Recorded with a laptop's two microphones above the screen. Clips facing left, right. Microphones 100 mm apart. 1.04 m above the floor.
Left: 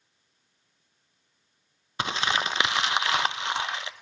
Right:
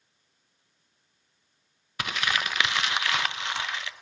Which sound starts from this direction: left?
Crumpling, at 2.0 s.